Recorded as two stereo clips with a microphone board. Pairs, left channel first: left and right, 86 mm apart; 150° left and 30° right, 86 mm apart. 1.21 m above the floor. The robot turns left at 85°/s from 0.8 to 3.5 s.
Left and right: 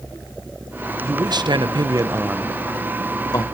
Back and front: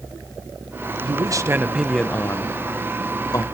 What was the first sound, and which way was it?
A man speaking, 45° right.